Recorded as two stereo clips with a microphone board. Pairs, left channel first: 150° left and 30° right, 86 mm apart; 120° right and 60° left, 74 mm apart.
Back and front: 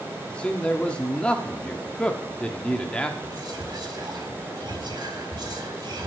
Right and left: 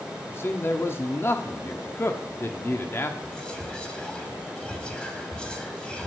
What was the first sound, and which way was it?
A man speaking, 140° right.